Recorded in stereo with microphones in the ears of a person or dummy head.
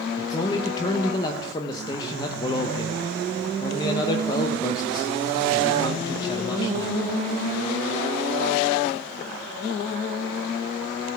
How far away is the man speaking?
About 0.8 m.